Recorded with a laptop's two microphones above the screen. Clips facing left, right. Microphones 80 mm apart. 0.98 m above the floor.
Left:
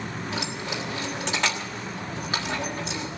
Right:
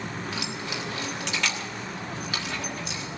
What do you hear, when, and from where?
0.3 s keys jangling: 35° left (ahead or behind), 1.3 m